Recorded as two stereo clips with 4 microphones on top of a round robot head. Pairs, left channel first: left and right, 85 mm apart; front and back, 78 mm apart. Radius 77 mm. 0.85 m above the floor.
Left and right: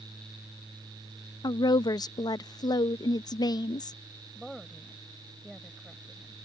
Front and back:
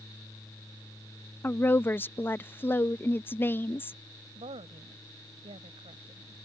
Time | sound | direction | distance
1.4 | a woman speaking | 60° left | ?
4.3 | a woman speaking | straight behind | ?